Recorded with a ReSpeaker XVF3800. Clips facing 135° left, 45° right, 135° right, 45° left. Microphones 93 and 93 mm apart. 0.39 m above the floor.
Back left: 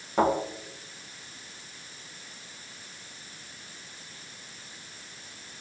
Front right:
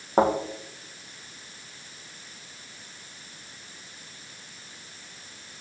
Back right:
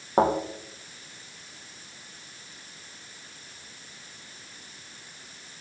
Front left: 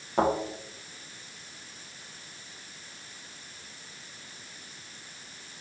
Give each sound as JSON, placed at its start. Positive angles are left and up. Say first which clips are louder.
{"t": 0.2, "sound": "a thud", "louder": "front right 2 dB, back right 3 dB", "azimuth_deg": -90, "distance_m": 4.0}